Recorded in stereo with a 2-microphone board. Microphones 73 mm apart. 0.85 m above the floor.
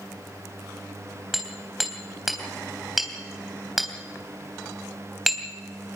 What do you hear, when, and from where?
1.3 s hammering: centre (ahead or behind), 3.5 m